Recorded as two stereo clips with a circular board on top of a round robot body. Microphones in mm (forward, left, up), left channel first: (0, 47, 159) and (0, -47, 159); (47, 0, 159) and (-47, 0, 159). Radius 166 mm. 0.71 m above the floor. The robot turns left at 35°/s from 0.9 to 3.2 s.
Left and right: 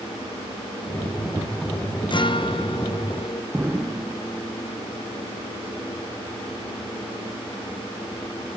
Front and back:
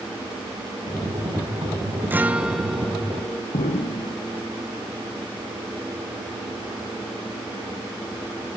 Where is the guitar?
110° left, 1.5 m; by 3.4 s 75° left, 1.5 m.